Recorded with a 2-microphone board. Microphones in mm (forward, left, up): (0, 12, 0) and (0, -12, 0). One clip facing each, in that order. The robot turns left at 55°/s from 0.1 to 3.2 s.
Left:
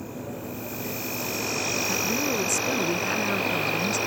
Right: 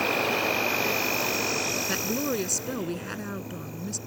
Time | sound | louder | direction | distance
0.0 | an insect | right 11 dB | 100° right | ?
1.9 | a woman speaking | left 2 dB | 135° right | ?